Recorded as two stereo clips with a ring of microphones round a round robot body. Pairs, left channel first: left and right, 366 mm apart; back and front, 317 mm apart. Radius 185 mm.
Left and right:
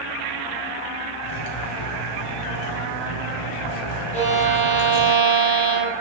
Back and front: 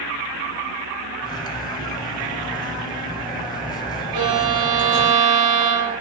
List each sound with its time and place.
1.2 s cutlery clinking: 105° left, 0.8 m
4.1 s a violin: 20° left, 2.5 m